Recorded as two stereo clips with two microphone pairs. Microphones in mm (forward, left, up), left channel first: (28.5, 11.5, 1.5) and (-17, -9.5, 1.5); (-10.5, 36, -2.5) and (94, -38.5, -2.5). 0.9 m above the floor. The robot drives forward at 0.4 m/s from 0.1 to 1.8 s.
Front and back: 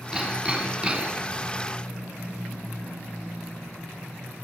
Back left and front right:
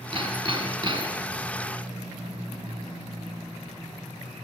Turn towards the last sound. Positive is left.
turn(degrees=-100)